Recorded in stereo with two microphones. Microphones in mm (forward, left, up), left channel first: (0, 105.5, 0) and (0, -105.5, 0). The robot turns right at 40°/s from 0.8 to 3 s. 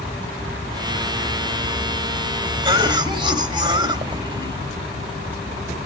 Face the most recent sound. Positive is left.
turn(degrees=-20)  # may be behind; listen again after turning